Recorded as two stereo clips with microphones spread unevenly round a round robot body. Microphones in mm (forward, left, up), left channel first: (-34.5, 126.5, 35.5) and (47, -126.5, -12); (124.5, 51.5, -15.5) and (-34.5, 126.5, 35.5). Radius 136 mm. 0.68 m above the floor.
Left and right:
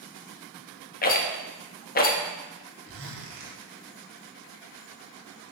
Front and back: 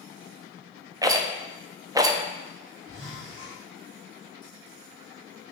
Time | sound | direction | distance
1.0 | a rattle | 70° left | 0.8 m
2.9 | a zipper | 110° right | 1.9 m